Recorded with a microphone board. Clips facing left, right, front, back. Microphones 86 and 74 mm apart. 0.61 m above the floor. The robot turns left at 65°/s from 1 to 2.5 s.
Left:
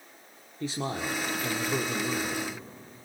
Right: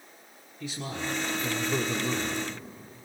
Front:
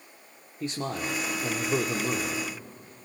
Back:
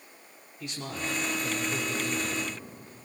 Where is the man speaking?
45° left, 1.6 m; by 2.4 s 50° right, 1.6 m.